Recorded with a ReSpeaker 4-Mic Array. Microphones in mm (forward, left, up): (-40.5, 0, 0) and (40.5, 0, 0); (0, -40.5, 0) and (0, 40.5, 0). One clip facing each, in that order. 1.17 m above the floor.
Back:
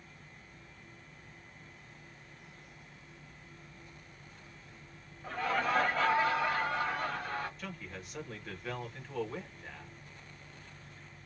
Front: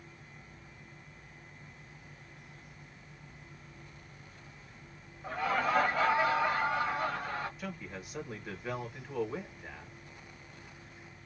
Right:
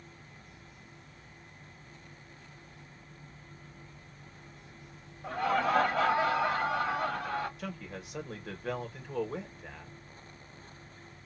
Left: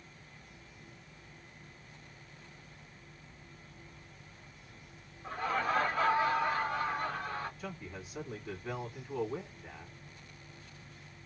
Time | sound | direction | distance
5.2 | laughter | 85° right | 1.8 m
7.6 | a man speaking | 80° right | 1.6 m